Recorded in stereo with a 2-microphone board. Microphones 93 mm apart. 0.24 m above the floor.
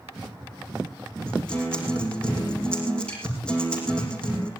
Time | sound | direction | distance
1.3 | a guitar | 10° left (ahead or behind) | 7.5 m